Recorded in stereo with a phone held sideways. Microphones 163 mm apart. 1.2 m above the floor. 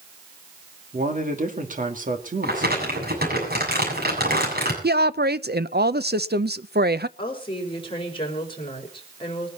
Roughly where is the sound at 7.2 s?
Left.